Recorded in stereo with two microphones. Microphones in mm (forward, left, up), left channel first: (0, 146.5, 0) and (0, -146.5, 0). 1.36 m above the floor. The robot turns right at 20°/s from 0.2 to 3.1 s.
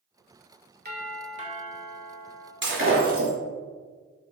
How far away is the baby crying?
I don't hear a baby crying.